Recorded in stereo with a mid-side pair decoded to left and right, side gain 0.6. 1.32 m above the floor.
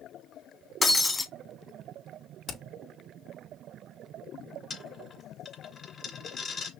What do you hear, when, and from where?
0.8 s breaking glass: 20° left, 1.6 m
2.5 s hammering: 50° left, 1.7 m
4.7 s a dropped coin: 40° left, 2.0 m